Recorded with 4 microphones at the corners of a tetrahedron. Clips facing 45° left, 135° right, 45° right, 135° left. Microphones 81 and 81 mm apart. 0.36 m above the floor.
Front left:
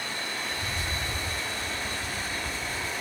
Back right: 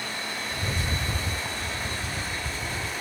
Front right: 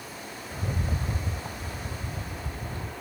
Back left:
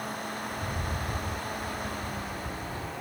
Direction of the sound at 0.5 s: 100° right.